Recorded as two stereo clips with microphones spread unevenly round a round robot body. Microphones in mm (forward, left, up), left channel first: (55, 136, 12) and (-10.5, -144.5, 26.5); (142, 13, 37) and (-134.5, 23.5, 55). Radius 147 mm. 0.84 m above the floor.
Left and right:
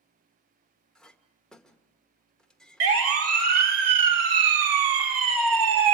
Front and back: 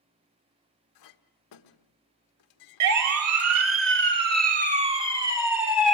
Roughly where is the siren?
Behind right.